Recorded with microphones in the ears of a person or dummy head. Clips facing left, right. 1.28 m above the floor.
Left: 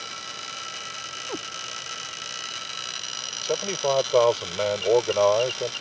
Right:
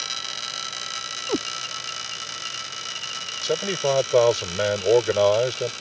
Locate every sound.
1.3 s a cat meowing: 35° right (ahead or behind)
3.4 s a man speaking: 15° right (ahead or behind)